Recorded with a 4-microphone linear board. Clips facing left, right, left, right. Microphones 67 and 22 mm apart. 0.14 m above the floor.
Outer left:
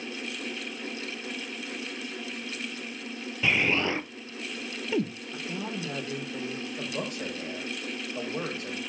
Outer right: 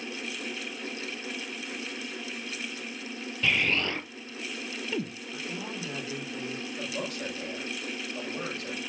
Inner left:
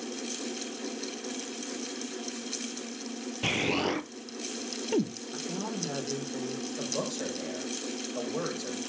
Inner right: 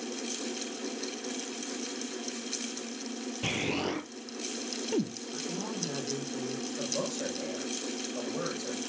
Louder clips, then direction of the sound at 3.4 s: Outer left 2 dB, inner left 4 dB; 15° left (ahead or behind).